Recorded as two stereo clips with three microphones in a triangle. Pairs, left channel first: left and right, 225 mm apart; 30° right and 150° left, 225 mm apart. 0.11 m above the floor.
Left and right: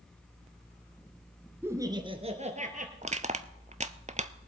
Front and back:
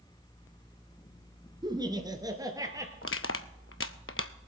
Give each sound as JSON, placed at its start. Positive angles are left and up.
{"t": 1.6, "sound": "laughter", "azimuth_deg": -160, "distance_m": 1.3}
{"t": 3.0, "sound": "crushing", "azimuth_deg": -30, "distance_m": 0.6}